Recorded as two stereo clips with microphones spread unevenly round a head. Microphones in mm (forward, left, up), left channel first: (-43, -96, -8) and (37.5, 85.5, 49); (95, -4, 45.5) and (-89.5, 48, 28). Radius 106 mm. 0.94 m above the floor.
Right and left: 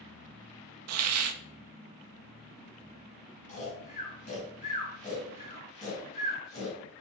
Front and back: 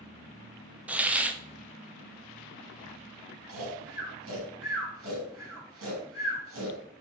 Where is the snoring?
175° right, 3.5 m.